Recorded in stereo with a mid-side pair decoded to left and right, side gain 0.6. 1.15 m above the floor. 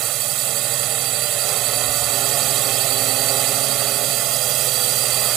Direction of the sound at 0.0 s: 60° right.